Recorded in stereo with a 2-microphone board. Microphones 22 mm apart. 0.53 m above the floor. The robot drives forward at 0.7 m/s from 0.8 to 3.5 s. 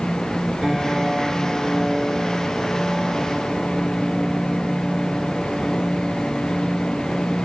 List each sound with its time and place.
0.6 s a piano: 20° right (ahead or behind), 4.5 m; by 7.3 s 35° right (ahead or behind), 3 m